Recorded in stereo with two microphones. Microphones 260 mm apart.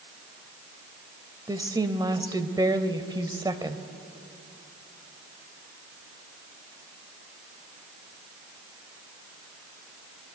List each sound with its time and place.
1.5 s a woman speaking: 15° right (ahead or behind), 1.0 m